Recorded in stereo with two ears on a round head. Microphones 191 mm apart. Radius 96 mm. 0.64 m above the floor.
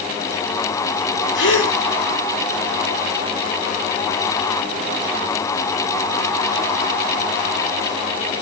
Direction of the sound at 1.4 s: 60° left (ahead or behind).